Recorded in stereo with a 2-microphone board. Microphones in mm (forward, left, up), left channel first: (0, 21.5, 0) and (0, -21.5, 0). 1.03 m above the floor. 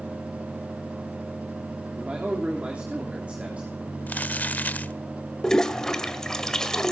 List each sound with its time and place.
1.9 s a man speaking: 30° right (ahead or behind), 3 m
4.1 s crumpling: 40° left (ahead or behind), 0.8 m
5.4 s a toilet flushing: 10° left (ahead or behind), 1.9 m